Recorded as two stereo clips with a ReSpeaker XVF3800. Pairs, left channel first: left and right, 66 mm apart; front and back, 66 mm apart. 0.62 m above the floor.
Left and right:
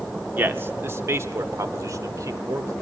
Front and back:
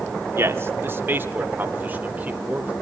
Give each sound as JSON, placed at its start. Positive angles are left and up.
{"t": 0.4, "sound": "a man speaking", "azimuth_deg": -145, "distance_m": 1.7}